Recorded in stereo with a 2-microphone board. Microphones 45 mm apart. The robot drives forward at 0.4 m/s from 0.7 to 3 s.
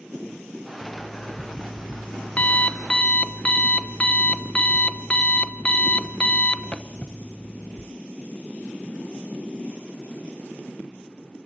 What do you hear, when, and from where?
0.8 s an alarm clock: 35° left (ahead or behind), 0.7 m; by 7.8 s 25° left (ahead or behind), 1.0 m